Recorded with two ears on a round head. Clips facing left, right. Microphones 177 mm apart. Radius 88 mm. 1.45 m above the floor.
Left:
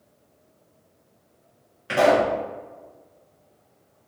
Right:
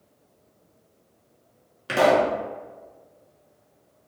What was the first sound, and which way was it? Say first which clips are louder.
A pop: left 1 dB; 50° right (ahead or behind).